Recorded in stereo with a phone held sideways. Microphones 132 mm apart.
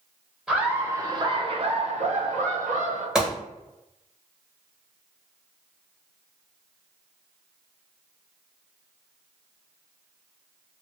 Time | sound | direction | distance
0.5 | laughter | 5° right (ahead or behind) | 0.9 m
3.1 | a gunshot | 5° right (ahead or behind) | 1.1 m